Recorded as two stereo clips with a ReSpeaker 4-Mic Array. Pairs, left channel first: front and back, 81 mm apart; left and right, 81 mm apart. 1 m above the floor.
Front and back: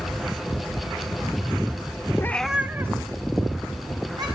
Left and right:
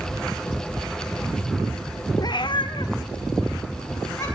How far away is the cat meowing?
About 0.6 m.